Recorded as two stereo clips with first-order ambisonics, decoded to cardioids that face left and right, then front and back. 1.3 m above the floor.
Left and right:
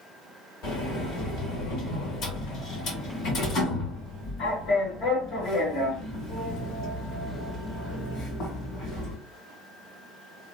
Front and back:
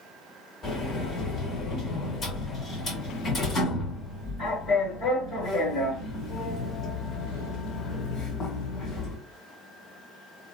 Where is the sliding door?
60° left, 1.7 m.